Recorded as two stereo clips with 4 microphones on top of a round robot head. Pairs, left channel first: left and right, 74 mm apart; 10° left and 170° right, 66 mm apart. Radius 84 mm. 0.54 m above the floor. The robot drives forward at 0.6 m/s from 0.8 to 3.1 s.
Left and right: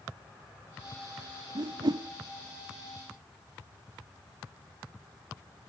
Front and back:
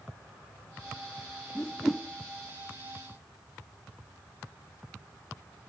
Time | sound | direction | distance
1.6 | a whoosh | 70° right | 1.0 m